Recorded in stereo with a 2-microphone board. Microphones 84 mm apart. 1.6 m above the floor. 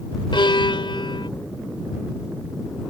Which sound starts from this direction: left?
A violin, at 0.3 s.